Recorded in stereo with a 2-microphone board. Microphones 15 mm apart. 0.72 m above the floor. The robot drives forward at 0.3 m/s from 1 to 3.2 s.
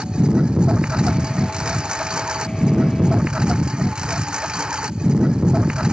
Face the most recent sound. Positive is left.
turn(degrees=-70)  # may be behind; listen again after turning